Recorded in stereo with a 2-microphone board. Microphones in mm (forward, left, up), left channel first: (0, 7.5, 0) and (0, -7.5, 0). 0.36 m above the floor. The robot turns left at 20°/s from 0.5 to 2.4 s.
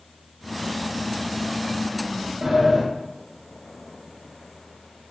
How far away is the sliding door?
About 0.7 m.